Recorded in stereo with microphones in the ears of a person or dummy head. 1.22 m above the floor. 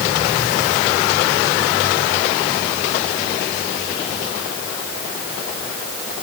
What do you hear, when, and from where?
Only background noise.